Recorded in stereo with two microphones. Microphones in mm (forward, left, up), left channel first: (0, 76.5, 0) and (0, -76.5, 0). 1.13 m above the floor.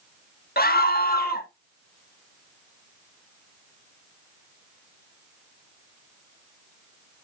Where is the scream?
85° left, 1.6 m.